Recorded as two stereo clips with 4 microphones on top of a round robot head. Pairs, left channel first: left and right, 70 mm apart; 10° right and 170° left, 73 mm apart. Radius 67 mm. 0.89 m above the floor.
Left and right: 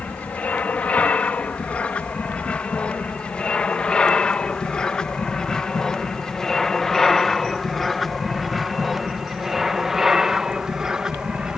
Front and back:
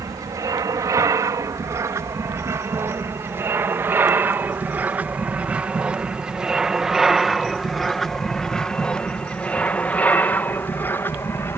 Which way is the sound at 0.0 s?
155° left.